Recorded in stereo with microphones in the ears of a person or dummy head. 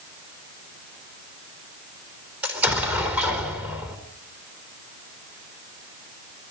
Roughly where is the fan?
No fan in this recording.